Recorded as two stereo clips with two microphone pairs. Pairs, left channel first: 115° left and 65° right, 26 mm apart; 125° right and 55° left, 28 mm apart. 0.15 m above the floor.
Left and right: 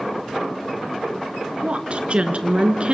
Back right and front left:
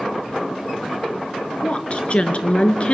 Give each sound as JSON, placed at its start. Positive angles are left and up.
{"t": 1.6, "sound": "a woman speaking", "azimuth_deg": -90, "distance_m": 2.0}